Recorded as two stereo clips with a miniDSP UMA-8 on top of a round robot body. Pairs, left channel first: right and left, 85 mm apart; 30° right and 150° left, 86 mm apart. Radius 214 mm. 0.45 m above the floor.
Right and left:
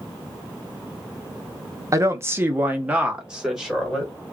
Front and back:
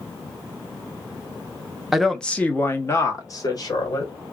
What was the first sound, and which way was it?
A woman speaking, 65° left.